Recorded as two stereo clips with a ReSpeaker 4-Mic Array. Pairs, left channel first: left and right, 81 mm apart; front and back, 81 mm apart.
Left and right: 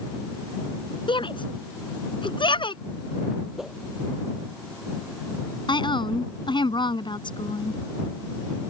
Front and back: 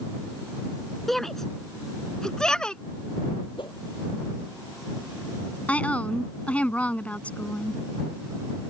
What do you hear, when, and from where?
1.1 s a shout: 85° left; by 2.8 s 80° left
3.6 s a whoosh: 5° right
5.7 s a woman speaking: 75° left